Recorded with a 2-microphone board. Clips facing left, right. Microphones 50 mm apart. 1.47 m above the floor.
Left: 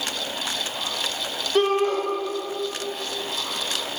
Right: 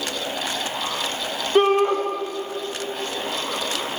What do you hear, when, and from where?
1.6 s a shout: 20° right (ahead or behind), 1.0 m